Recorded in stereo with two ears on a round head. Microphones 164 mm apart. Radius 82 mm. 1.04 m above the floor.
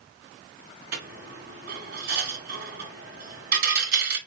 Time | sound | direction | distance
0.9 | a dropped coin | 50° right (ahead or behind) | 1.8 m